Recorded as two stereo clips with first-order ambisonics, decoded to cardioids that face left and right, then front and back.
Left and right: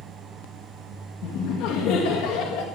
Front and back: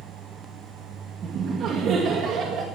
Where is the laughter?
120° left, 1.9 m.